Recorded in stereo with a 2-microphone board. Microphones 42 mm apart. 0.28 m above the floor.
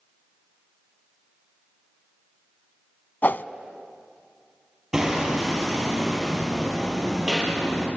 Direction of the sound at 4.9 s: 10° right (ahead or behind).